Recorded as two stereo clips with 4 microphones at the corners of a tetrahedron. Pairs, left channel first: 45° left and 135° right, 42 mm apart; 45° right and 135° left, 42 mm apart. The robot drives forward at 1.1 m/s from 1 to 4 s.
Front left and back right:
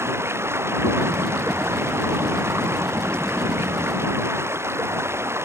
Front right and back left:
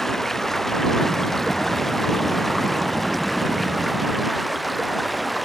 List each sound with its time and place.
0.0 s running water: 130° right; by 5.4 s 135° right